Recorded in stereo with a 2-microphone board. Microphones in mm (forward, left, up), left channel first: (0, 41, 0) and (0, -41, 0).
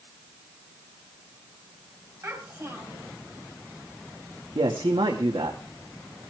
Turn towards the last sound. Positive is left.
turn(degrees=-75)  # may be behind; listen again after turning